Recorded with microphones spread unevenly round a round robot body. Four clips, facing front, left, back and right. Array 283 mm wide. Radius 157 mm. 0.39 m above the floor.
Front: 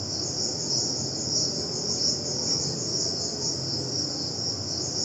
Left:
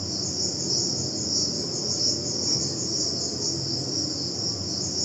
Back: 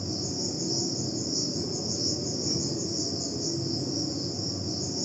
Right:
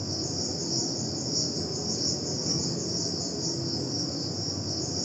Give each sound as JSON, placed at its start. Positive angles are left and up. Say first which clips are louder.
{"t": 0.0, "sound": "an insect", "louder": "even, back 2 dB", "azimuth_deg": -150, "distance_m": 3.0}